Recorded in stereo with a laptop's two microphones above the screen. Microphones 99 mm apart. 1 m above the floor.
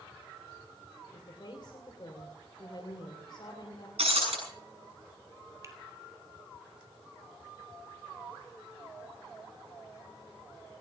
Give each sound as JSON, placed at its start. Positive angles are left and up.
{"t": 1.1, "sound": "a woman speaking", "side_deg": 50, "distance_m": 3.0}
{"t": 4.0, "sound": "breaking glass", "side_deg": -80, "distance_m": 6.5}
{"t": 5.6, "sound": "a finger snap", "side_deg": -30, "distance_m": 3.0}